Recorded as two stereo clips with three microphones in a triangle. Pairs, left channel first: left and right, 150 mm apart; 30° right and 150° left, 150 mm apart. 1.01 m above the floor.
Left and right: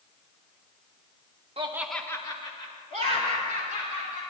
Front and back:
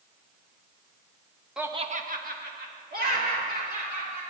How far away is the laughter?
About 0.6 m.